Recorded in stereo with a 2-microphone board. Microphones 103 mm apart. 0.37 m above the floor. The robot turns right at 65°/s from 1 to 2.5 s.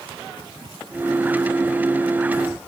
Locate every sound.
Only background noise.